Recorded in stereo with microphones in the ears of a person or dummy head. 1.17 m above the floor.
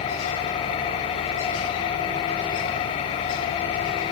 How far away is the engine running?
About 3 m.